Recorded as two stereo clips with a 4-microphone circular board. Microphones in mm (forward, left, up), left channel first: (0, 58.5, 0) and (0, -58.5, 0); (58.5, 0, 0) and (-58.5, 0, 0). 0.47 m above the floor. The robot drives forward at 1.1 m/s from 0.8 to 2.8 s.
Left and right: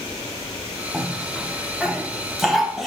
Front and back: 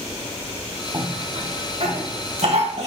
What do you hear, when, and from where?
0.9 s a cough: 175° right, 0.9 m; by 2.9 s straight behind, 2.5 m